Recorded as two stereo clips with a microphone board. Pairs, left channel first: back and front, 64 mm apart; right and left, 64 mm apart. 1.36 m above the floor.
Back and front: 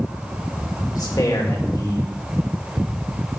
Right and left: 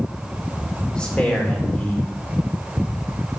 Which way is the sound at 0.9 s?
165° right.